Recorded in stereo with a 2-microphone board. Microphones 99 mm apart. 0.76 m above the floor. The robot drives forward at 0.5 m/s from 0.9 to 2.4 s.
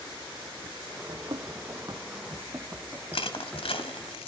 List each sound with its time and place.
1.1 s running footsteps: 60° right (ahead or behind), 1.8 m; by 4.1 s centre (ahead or behind), 4 m
3.1 s crushing: 85° left, 1.9 m